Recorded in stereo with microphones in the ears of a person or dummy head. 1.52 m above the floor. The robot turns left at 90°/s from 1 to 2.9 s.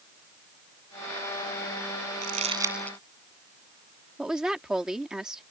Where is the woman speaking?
5° right (ahead or behind).